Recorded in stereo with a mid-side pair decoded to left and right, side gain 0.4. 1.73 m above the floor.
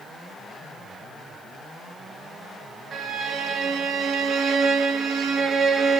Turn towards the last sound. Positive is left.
turn(degrees=-60)